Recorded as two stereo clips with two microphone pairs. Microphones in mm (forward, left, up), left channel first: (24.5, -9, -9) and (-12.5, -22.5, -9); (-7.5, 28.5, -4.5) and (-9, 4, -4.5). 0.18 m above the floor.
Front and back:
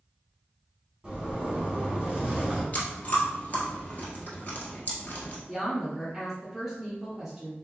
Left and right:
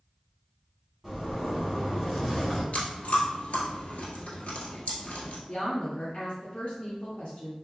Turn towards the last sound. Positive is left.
turn(degrees=125)